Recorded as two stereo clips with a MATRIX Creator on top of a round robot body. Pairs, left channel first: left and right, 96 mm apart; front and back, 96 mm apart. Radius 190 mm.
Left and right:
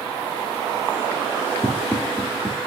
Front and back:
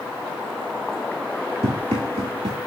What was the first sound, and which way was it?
Running footsteps, 165° left.